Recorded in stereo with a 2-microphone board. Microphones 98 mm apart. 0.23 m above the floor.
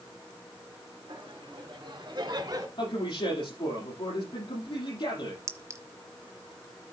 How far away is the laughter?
About 3.5 m.